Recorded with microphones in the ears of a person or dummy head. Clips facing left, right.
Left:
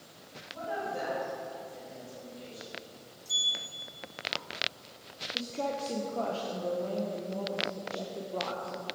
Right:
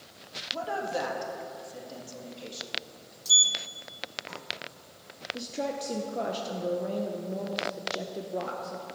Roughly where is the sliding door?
Right.